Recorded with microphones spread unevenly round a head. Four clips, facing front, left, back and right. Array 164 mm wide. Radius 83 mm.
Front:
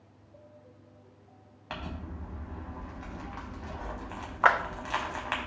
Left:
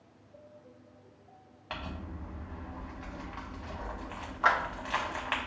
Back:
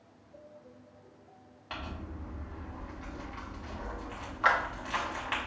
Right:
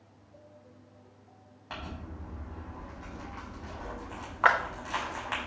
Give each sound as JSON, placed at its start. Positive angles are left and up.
{"t": 1.7, "sound": "crumpling", "azimuth_deg": 25, "distance_m": 1.0}
{"t": 4.4, "sound": "a clap", "azimuth_deg": -30, "distance_m": 0.6}